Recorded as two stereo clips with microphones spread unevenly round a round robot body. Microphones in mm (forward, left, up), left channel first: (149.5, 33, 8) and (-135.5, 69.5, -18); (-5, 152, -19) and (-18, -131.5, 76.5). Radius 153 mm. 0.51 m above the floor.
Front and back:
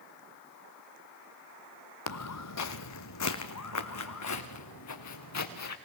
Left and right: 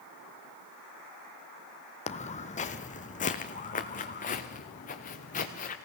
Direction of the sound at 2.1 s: 10° left.